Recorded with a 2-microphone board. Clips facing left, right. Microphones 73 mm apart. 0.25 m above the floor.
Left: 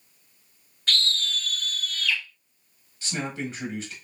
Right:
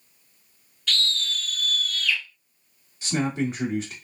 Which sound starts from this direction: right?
A man speaking, at 3.0 s.